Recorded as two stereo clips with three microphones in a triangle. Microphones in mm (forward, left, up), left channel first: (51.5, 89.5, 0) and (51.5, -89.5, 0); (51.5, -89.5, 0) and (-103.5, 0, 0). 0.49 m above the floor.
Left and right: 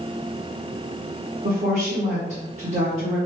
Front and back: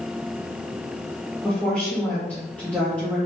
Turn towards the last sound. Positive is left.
turn(degrees=-110)